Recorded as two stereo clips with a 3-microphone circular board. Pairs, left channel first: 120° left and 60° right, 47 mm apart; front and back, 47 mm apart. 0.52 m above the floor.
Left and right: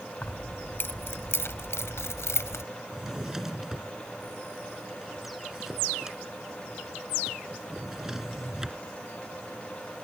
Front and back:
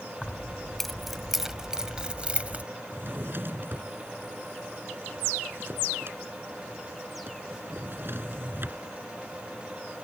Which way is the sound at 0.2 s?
75° left.